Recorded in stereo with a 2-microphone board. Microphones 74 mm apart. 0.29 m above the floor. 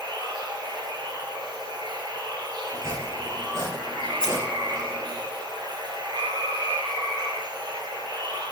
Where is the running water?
85° right, 1.2 m.